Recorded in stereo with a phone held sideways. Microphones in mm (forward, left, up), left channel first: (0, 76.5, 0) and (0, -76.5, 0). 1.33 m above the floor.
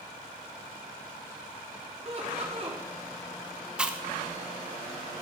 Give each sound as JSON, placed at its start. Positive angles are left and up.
{"t": 2.0, "sound": "laughter", "side_deg": -45, "distance_m": 3.5}
{"t": 3.8, "sound": "chewing", "side_deg": -5, "distance_m": 0.9}